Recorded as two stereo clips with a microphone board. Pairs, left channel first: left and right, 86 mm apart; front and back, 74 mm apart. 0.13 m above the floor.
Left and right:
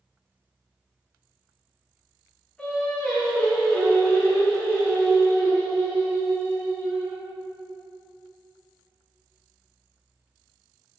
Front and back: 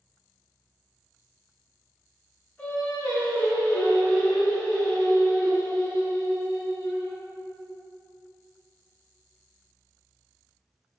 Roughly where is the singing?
Ahead left.